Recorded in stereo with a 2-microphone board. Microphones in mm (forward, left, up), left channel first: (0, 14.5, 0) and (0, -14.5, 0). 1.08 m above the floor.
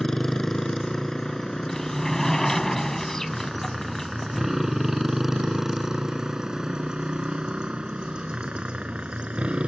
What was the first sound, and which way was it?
A motorcycle, 20° left (ahead or behind).